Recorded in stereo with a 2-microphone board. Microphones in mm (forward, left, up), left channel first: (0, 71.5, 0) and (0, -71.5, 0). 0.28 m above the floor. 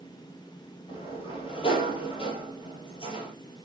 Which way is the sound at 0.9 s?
40° left (ahead or behind).